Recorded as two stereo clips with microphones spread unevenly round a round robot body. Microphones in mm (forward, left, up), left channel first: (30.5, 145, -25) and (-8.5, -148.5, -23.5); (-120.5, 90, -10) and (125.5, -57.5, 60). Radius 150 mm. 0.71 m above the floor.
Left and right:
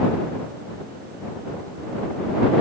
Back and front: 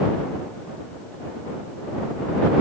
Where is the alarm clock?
No alarm clock in this recording.